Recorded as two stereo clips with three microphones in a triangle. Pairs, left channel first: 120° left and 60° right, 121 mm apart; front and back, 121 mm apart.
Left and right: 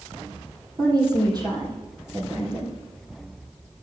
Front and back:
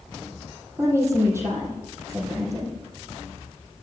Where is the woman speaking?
115° right, 3 m.